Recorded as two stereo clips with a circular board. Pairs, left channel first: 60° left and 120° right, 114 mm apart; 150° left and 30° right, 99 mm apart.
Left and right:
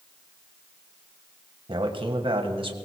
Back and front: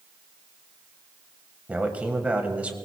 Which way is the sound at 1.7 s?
105° right.